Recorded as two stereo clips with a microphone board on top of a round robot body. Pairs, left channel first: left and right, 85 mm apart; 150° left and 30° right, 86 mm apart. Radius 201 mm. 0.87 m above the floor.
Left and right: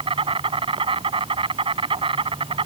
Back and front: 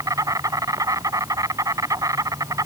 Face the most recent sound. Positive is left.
turn(degrees=-80)